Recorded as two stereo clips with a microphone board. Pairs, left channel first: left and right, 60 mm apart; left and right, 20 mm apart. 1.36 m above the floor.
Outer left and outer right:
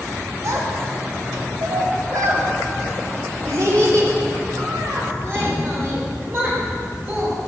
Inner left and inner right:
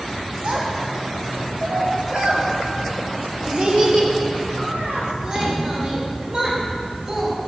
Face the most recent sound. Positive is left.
turn(degrees=-35)  # may be behind; listen again after turning